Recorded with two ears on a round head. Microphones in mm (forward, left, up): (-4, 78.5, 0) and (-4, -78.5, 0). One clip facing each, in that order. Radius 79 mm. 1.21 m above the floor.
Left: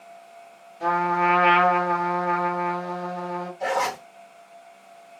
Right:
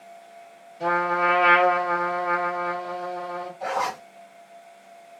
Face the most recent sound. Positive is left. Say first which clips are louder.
# left 3 dB
turn(degrees=25)  # may be behind; listen again after turning